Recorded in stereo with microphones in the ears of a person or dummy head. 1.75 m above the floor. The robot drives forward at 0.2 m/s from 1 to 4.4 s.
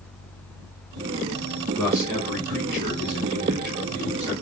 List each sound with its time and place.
1.8 s a man speaking: 5° left (ahead or behind), 1.5 m